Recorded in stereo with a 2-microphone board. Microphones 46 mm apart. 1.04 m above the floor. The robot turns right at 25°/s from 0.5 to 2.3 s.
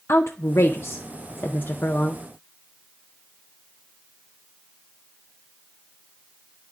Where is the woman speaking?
75° left (ahead or behind), 0.5 m; by 2.2 s 40° left (ahead or behind), 0.5 m.